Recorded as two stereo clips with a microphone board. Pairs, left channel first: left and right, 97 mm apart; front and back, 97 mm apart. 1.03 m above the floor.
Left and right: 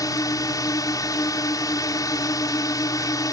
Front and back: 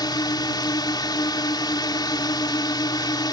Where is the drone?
45° left.